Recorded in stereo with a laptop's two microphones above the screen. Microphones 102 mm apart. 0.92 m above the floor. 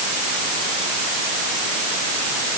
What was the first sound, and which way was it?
Only background noise.